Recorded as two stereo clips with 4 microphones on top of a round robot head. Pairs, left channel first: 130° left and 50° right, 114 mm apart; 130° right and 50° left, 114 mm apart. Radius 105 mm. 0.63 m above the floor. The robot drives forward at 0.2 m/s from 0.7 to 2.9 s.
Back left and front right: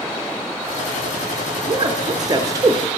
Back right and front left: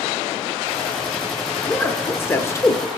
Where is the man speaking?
60° right, 0.7 m; by 3.0 s 95° right, 0.7 m.